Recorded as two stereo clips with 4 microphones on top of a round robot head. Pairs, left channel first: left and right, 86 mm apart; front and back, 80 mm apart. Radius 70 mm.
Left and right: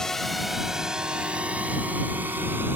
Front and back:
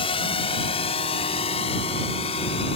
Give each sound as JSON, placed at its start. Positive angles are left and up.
{"t": 0.0, "sound": "a drone", "azimuth_deg": 5}